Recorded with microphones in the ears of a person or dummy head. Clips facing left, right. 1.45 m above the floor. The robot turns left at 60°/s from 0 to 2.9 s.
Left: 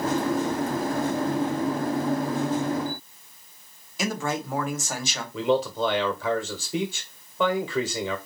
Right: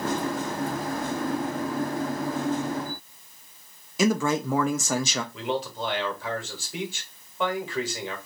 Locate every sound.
4.0 s a man speaking: 80° right, 0.8 m
5.3 s a man speaking: 70° left (ahead or behind), 1.5 m